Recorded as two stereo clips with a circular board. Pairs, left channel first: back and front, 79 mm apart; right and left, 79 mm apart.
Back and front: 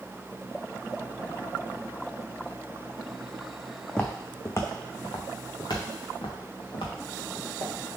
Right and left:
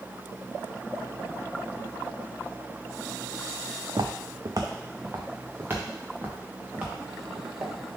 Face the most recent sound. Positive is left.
turn(degrees=170)